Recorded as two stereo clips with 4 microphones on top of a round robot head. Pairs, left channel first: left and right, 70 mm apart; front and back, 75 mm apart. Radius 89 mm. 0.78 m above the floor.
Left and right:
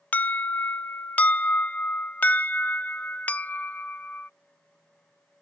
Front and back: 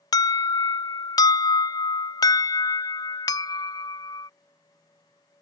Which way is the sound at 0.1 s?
20° left.